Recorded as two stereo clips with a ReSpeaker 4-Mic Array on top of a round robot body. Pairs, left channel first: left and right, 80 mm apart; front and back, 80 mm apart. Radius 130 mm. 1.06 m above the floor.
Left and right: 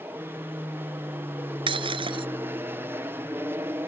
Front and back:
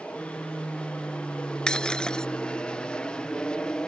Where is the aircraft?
60° right; by 3.9 s 70° right.